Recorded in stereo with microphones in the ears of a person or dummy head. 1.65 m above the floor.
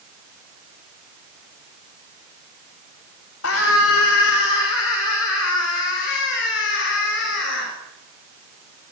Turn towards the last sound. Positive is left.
turn(degrees=70)  # may be behind; listen again after turning